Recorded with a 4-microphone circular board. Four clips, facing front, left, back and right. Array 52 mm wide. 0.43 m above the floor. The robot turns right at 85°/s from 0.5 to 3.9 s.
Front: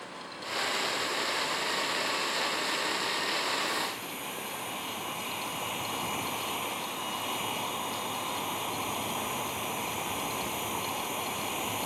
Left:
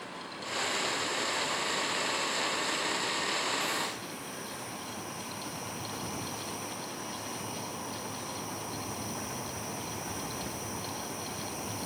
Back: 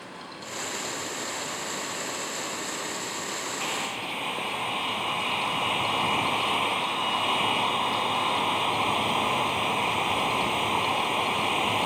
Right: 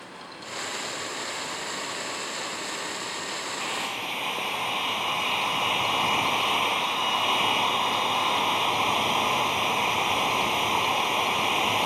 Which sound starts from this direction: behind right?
A hair dryer, at 3.6 s.